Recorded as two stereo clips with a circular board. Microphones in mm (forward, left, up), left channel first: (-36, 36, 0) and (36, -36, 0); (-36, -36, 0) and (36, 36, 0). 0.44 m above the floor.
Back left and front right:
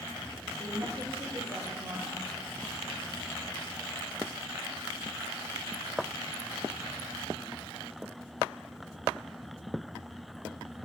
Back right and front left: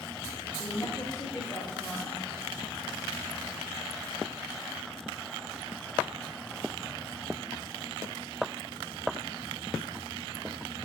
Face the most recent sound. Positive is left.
turn(degrees=-60)